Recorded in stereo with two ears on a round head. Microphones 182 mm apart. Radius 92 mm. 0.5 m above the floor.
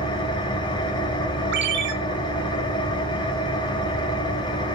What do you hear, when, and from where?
0.0 s an engine running: 25° left (ahead or behind), 2.0 m
1.5 s a ringtone: 60° right (ahead or behind), 3 m